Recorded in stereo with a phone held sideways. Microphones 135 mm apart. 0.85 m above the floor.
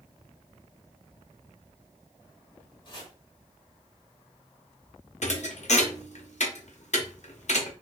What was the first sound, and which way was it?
Chopping, 35° left (ahead or behind).